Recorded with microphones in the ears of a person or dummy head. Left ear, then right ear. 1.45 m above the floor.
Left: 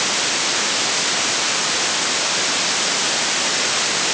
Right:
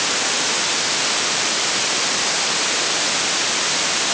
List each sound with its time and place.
Only background noise.